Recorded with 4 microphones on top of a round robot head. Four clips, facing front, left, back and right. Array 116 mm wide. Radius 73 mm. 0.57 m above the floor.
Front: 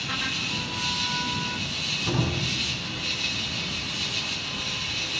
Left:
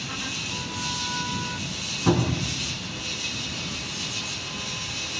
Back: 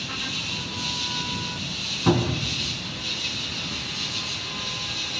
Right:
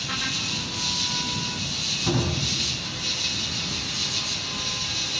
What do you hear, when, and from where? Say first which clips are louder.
0.0 s an insect: right 2 dB, front 2 dB; 20° right, 1.2 m
2.1 s a cupboard door: left 3 dB, back 6 dB; 150° left, 5 m